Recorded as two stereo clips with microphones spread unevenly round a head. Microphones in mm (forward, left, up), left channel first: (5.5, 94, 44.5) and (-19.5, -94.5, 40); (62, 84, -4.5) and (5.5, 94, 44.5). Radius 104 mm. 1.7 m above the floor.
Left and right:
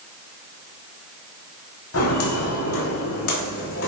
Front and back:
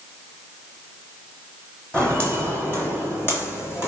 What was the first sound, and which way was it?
Footsteps, 80° left.